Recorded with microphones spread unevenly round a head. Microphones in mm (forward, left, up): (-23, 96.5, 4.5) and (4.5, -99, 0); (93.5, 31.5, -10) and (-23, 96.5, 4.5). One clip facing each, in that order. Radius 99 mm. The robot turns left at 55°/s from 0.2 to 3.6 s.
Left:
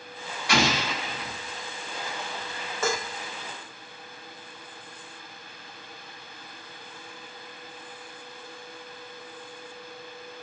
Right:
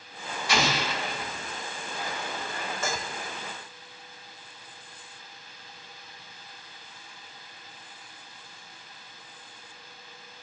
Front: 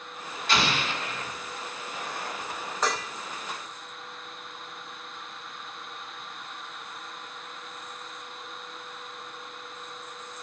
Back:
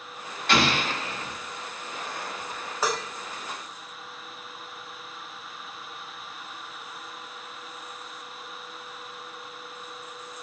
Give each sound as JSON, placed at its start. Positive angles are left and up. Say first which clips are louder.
{"t": 0.5, "sound": "an explosion", "louder": "left 2 dB, back 3 dB", "azimuth_deg": 125, "distance_m": 1.2}
{"t": 2.8, "sound": "dishes clattering", "louder": "left 7 dB, back 1 dB", "azimuth_deg": 65, "distance_m": 0.7}